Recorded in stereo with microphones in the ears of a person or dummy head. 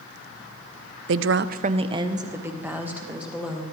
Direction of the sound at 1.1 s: 65° right (ahead or behind).